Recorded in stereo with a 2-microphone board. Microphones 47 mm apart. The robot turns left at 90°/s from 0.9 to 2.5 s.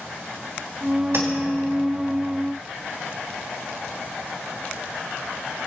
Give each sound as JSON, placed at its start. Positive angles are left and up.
{"t": 1.1, "sound": "tapping", "side_deg": -70, "distance_m": 4.0}